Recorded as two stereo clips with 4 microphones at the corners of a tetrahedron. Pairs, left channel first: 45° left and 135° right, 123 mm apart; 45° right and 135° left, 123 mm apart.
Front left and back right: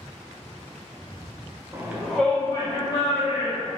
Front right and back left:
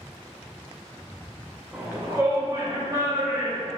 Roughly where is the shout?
Behind.